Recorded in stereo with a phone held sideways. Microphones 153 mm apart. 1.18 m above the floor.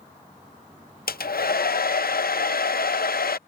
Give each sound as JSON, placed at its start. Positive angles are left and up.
{"t": 1.1, "sound": "a hair dryer", "side_deg": 75}